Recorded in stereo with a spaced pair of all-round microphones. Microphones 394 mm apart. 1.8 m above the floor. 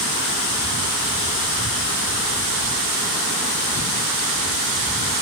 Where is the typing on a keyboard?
I don't hear typing on a keyboard.